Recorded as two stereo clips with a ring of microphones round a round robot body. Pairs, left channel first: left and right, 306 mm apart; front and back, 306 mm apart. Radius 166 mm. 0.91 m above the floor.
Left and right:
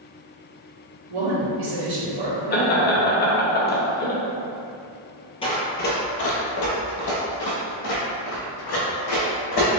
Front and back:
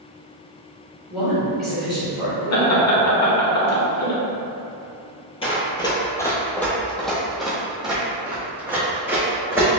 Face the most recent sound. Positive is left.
turn(degrees=95)